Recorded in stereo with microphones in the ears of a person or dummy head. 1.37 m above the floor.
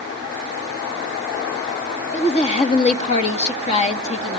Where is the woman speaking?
35° left (ahead or behind), 1.7 m.